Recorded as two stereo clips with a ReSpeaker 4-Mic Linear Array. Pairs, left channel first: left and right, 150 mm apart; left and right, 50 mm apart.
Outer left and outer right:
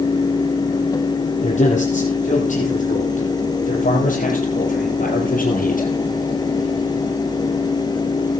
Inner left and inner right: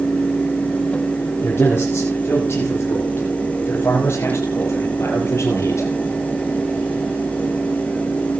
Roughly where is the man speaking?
Left.